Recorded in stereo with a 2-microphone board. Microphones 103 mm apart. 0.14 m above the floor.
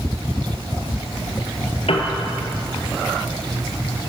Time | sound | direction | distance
1.9 | a piano | 65° left (ahead or behind) | 1.5 m